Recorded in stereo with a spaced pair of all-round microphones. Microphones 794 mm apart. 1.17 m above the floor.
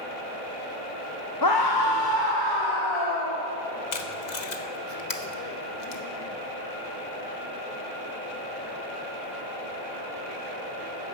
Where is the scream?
25° left (ahead or behind), 1.3 m; by 3.5 s 40° left (ahead or behind), 3 m.